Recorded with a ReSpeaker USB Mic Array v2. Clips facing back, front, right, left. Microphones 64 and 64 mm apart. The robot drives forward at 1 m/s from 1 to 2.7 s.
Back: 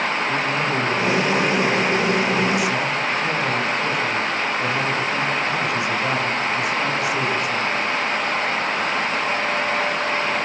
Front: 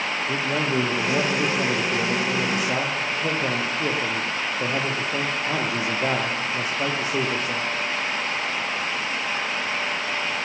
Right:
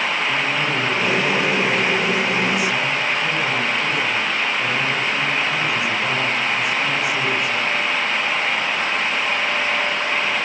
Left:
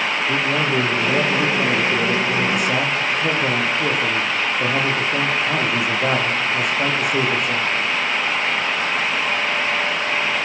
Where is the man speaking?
45° left, 9.5 m; by 7.7 s 55° left, 8 m.